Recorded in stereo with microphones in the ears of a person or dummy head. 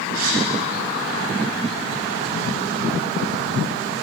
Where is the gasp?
85° right, 3 m.